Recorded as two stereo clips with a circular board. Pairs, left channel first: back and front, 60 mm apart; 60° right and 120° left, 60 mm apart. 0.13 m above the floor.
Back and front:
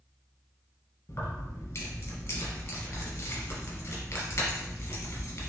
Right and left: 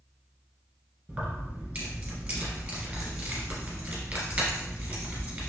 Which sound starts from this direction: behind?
Keys jangling, at 1.1 s.